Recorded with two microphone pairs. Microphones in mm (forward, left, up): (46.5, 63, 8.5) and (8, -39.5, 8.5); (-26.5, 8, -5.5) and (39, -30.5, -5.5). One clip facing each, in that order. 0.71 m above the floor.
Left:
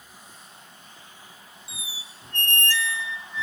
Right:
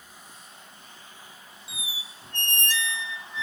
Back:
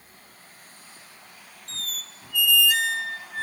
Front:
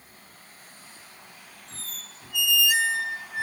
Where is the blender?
No blender in this recording.